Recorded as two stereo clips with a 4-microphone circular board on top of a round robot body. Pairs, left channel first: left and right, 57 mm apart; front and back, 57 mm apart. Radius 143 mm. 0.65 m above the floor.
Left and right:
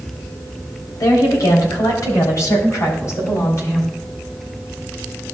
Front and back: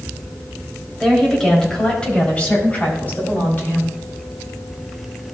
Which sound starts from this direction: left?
A woman speaking, at 1.0 s.